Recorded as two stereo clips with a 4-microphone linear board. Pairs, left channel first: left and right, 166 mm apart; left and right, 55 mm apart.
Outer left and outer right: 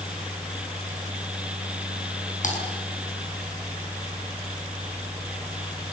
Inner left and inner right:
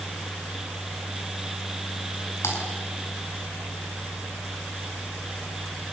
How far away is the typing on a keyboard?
About 6 m.